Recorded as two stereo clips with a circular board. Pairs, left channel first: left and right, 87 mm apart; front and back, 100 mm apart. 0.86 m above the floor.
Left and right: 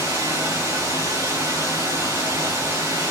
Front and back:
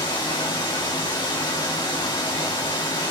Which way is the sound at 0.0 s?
35° right.